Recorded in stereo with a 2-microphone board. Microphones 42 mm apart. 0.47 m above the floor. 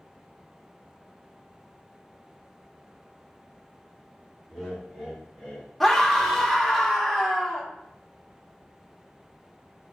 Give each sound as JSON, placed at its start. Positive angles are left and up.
{"t": 4.5, "sound": "laughter", "side_deg": -15, "distance_m": 1.5}
{"t": 5.8, "sound": "a scream", "side_deg": 0, "distance_m": 0.8}